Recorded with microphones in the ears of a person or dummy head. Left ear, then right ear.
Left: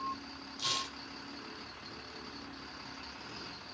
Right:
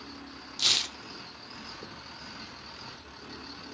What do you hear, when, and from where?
0.6 s tearing paper: 40° right (ahead or behind), 0.8 m